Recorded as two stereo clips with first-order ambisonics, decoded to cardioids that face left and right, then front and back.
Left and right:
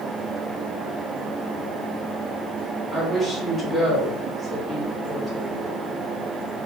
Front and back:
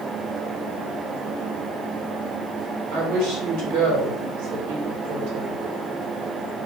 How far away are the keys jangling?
I don't hear keys jangling.